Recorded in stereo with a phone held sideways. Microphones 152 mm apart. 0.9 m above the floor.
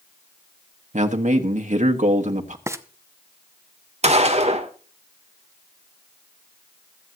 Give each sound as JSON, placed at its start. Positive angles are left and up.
{"t": 0.9, "sound": "a man speaking", "side_deg": -55, "distance_m": 1.2}
{"t": 2.7, "sound": "frying", "side_deg": -20, "distance_m": 0.7}
{"t": 4.0, "sound": "a gunshot", "side_deg": -45, "distance_m": 1.4}